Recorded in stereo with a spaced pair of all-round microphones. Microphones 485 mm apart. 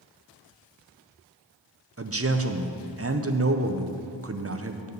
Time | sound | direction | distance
2.0 | a man speaking | 30° right (ahead or behind) | 0.6 m